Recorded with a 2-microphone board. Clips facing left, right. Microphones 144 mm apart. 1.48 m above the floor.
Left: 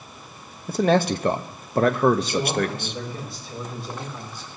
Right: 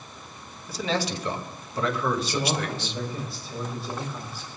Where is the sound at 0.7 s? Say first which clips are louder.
Left 9 dB; 55° left (ahead or behind), 0.6 m.